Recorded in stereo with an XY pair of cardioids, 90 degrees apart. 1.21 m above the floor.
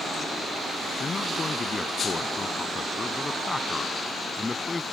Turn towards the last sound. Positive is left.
turn(degrees=25)